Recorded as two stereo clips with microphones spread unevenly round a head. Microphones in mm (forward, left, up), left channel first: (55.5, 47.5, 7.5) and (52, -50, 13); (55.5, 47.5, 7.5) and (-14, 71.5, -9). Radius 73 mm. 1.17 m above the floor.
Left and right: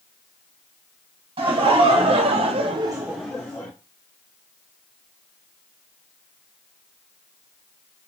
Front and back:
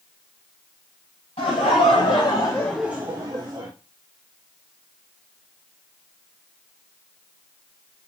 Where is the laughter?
65° right, 1.6 m; by 3.7 s 155° left, 0.9 m.